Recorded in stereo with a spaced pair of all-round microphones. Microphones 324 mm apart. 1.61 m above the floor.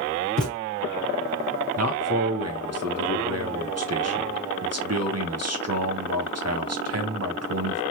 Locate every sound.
0.4 s a thud: 5° left (ahead or behind), 1.8 m
1.8 s a man speaking: 50° right (ahead or behind), 0.6 m